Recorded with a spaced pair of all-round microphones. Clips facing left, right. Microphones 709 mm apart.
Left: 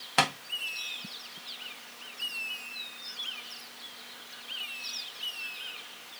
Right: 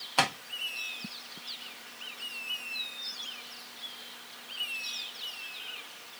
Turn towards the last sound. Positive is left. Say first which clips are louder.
# left 1 dB
turn(degrees=50)  # may be behind; listen again after turning